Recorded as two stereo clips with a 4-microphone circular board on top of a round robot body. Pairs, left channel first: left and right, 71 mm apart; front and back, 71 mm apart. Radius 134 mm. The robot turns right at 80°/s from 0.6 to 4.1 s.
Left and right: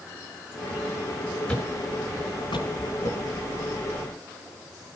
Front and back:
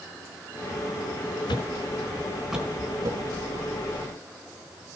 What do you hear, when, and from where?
1.5 s a thud: 10° left, 4.5 m; by 3.3 s 160° left, 4.5 m